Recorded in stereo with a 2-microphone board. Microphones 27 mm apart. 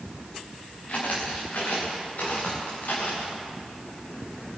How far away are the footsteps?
About 4 m.